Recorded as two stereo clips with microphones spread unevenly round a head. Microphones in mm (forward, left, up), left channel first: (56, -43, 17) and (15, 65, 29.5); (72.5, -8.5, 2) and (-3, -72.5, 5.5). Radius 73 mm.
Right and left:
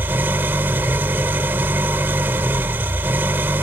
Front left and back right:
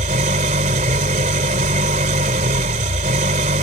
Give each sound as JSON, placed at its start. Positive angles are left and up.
{"t": 0.0, "sound": "an engine running", "azimuth_deg": -175}